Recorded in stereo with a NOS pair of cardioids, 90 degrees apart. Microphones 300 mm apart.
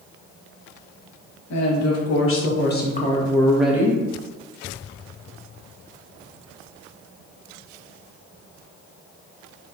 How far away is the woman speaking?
About 1.5 m.